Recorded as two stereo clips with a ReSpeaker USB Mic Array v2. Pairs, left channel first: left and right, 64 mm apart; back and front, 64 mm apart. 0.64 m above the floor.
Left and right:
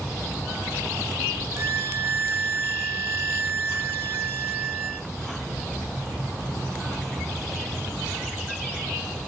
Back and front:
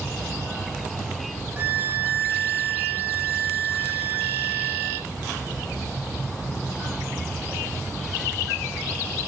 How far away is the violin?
About 1.0 m.